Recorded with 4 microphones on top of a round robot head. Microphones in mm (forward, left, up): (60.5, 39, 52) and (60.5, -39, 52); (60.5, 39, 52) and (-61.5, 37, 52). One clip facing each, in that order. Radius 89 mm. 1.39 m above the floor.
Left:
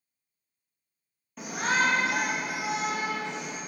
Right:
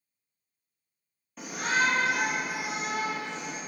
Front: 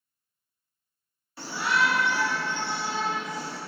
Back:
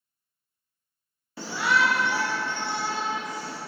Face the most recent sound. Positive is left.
turn(degrees=130)